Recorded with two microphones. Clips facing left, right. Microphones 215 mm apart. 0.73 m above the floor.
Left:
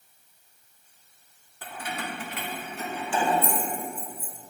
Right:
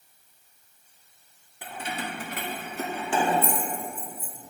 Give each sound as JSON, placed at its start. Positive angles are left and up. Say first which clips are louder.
{"t": 1.6, "sound": "keys jangling", "louder": "right 1 dB", "side_deg": -15, "distance_m": 0.8}